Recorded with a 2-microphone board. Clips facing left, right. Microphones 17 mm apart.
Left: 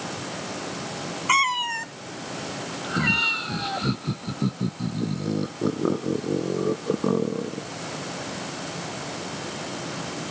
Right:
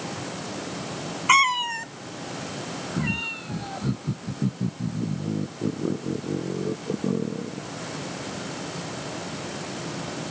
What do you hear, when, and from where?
1.3 s a cat meowing: 20° right (ahead or behind); by 3.8 s 30° left (ahead or behind)
2.8 s laughter: 50° left (ahead or behind)